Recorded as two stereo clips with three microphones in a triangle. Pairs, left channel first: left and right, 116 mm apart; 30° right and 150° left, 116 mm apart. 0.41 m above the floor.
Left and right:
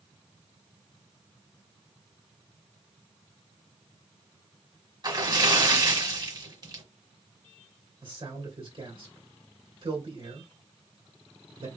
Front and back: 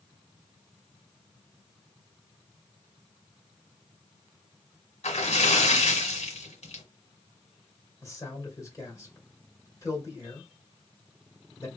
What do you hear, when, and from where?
5.0 s a splash: 40° right, 1.2 m
8.0 s a man speaking: 85° right, 2 m